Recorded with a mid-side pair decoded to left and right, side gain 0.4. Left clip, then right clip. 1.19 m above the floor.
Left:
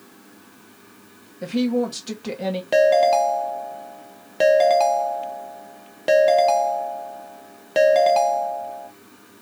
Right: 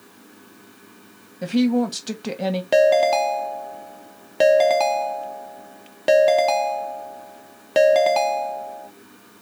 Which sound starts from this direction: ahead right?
A woman speaking, at 1.4 s.